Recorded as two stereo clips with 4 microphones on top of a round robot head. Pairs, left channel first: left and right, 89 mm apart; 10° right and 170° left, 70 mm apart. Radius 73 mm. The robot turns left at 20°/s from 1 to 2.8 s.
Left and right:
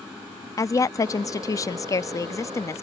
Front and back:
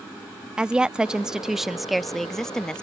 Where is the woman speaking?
100° left; by 2.8 s 60° left.